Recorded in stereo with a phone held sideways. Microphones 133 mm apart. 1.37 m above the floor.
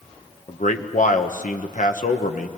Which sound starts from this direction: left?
A man speaking, at 0.5 s.